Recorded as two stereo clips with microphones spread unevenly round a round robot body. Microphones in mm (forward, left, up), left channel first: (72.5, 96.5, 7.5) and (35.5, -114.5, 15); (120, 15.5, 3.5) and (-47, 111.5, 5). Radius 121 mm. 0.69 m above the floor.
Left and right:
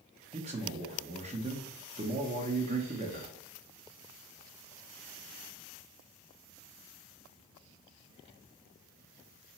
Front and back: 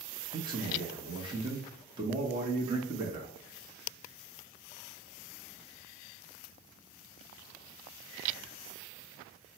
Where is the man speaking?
150° right, 0.6 m.